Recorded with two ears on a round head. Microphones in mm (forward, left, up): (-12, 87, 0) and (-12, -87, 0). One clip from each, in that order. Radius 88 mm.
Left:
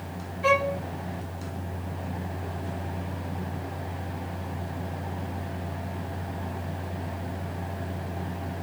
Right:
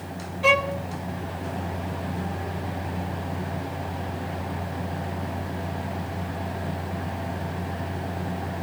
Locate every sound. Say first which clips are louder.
0.4 s a violin: right 3 dB; 35° right (ahead or behind), 1.1 m